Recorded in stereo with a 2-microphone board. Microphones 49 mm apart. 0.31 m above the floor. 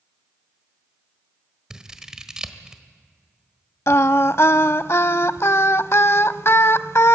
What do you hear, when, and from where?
1.7 s scissors: 15° right (ahead or behind), 1.3 m
3.9 s singing: 65° left (ahead or behind), 0.5 m